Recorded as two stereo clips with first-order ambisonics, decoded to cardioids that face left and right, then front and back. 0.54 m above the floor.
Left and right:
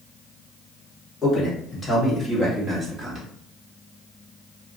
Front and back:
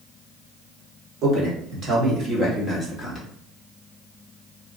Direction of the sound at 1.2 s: 160° left.